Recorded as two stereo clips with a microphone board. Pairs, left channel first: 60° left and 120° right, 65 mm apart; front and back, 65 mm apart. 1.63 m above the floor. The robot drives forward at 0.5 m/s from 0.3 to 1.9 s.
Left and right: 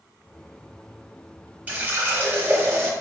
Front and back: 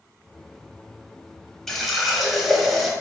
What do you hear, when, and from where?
1.7 s a running tap: 80° right, 0.9 m; by 2.9 s 95° right, 0.9 m